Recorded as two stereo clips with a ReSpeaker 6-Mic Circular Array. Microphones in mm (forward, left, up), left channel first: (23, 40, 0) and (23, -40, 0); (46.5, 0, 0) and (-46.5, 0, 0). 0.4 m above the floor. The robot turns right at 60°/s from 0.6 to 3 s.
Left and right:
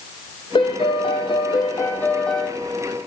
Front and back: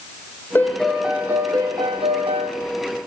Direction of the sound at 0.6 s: 70° left.